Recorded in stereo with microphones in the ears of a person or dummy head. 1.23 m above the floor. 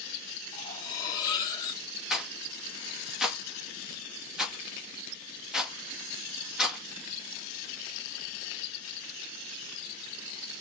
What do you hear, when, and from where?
0.5 s cutlery clinking: 20° left (ahead or behind), 1.3 m
2.1 s a rattle: 10° right (ahead or behind), 1.7 m